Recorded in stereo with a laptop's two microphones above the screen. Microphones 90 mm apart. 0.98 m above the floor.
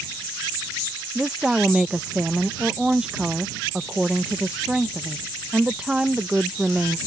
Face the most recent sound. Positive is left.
turn(degrees=-10)  # may be behind; listen again after turning